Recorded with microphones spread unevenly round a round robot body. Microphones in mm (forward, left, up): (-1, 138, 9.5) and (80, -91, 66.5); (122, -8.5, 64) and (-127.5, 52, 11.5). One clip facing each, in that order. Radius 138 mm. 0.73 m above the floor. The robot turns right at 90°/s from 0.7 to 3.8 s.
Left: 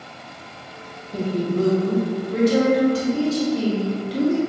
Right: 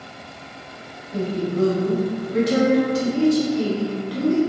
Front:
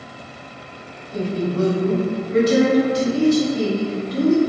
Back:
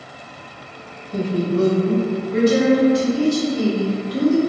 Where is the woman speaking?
175° left, 0.9 m; by 4.4 s 55° left, 0.9 m.